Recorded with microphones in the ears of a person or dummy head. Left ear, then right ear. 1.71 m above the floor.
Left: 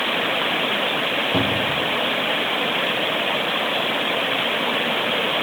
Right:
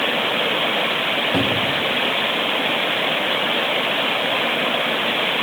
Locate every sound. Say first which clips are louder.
1.3 s a cupboard door: right 1 dB; centre (ahead or behind), 3 m